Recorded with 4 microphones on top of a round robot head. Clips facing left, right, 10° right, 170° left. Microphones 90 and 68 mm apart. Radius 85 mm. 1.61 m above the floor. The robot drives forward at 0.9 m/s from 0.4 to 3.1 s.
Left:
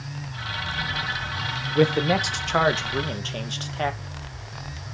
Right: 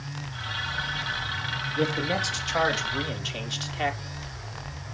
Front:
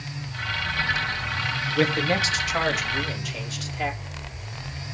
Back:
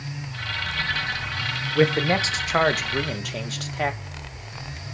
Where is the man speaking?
100° left, 1.3 m; by 4.0 s 140° left, 2.0 m.